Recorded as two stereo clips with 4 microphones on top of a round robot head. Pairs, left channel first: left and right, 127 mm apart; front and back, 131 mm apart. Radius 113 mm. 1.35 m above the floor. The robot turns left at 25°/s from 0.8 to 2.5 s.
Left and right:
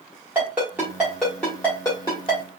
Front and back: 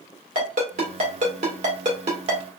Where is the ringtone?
170° right, 1.2 m; by 2.4 s 150° left, 1.2 m.